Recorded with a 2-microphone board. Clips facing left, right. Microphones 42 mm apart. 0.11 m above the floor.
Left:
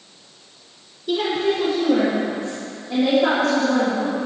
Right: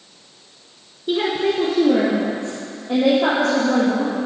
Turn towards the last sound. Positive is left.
turn(degrees=-70)  # may be behind; listen again after turning